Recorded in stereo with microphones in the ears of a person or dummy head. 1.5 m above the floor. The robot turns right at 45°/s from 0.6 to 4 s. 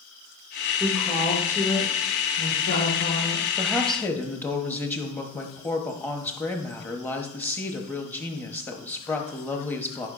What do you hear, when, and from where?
0.8 s a woman speaking: 15° right, 1.8 m; by 3.5 s 105° left, 1.8 m
3.6 s a woman speaking: 10° right (ahead or behind), 0.9 m; by 10.1 s 10° left (ahead or behind), 0.9 m